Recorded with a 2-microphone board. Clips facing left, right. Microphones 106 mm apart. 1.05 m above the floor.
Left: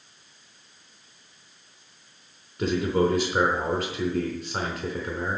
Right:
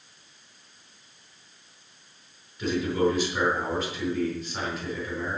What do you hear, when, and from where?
2.6 s a man speaking: 50° left (ahead or behind), 4 m